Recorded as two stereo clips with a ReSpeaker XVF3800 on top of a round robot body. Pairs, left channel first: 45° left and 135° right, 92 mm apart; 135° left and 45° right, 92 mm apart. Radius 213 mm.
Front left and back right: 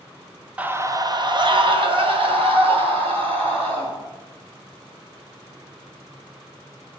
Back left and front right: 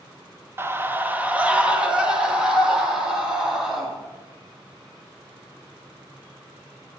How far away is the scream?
About 1.0 m.